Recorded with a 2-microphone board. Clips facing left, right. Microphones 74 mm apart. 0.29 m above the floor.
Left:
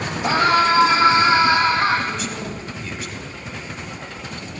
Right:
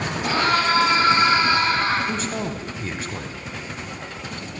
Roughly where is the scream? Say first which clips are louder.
Left 4 dB; centre.